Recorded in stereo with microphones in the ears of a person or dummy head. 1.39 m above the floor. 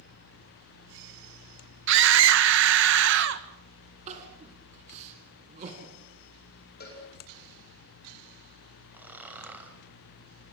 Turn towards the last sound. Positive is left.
turn(degrees=-10)  # may be behind; listen again after turning